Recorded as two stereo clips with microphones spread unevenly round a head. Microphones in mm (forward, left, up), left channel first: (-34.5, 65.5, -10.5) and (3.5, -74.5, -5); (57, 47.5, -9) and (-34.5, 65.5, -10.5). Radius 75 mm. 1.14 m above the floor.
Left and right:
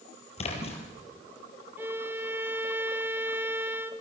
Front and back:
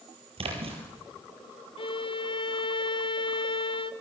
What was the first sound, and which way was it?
A splash, 155° left.